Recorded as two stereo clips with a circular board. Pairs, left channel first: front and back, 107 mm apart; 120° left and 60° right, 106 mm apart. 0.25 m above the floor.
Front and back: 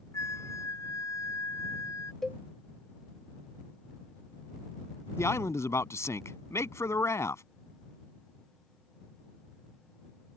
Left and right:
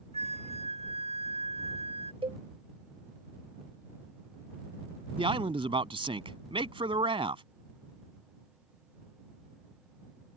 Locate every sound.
0.1 s a flute: 65° right
2.2 s a cowbell: 90° right
5.2 s a man speaking: 60° right